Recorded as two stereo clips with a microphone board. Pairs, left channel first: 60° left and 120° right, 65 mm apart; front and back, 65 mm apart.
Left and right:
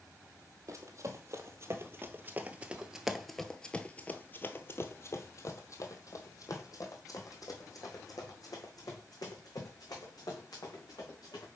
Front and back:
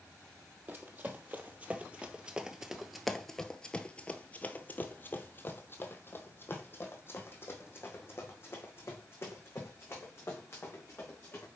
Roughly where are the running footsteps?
Behind right.